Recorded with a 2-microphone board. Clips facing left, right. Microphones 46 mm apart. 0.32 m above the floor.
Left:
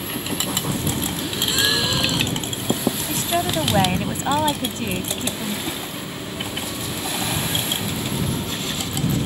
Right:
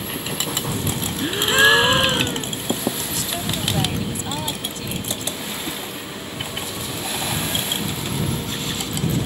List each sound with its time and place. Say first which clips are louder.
1.2 s a gasp: right 9 dB; 40° right (ahead or behind)
3.1 s a woman speaking: left 5 dB; 40° left (ahead or behind)
5.7 s a whoosh: left 1 dB; 5° right (ahead or behind)